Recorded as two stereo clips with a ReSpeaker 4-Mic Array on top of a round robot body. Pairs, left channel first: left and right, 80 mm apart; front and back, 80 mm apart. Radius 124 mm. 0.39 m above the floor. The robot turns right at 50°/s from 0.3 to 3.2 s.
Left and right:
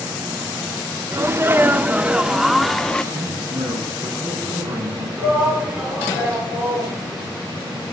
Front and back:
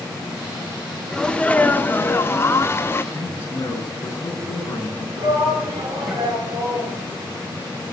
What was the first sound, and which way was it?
A sneeze, 75° right.